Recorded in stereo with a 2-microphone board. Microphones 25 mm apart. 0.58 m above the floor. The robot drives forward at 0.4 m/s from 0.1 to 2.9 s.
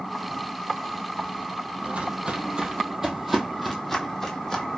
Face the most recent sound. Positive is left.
turn(degrees=25)  # may be behind; listen again after turning